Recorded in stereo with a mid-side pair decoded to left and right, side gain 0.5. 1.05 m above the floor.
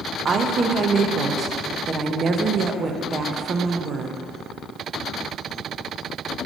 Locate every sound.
0.2 s a woman speaking: 40° right, 0.7 m